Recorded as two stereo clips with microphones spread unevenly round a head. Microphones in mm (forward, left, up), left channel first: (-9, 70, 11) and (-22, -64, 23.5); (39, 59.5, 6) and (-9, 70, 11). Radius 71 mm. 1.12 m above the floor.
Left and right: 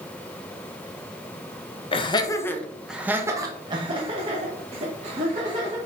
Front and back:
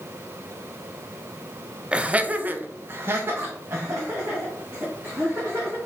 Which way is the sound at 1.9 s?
100° left.